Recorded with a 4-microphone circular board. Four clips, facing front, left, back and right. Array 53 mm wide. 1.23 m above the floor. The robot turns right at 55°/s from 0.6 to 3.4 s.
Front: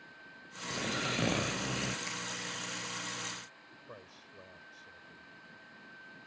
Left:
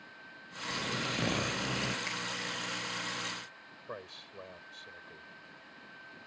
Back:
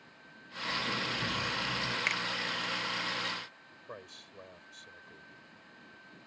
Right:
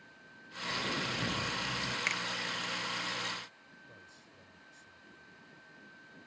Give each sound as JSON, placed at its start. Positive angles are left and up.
{"t": 0.7, "sound": "snoring", "azimuth_deg": -5}
{"t": 2.1, "sound": "a finger snap", "azimuth_deg": -155}
{"t": 3.9, "sound": "a man speaking", "azimuth_deg": 110}